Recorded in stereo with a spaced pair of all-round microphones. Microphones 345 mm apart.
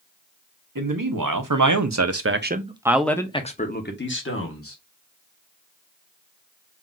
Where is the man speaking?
70° right (ahead or behind), 1.1 m; by 4.8 s 40° left (ahead or behind), 1.2 m.